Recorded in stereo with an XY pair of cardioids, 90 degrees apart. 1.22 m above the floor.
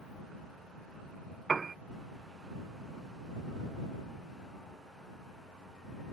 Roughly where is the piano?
Ahead right.